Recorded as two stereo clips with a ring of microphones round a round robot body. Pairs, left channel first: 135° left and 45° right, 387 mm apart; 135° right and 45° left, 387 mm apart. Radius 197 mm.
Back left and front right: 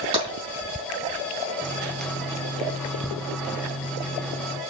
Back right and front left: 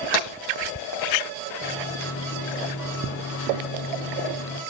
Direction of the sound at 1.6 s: 140° right.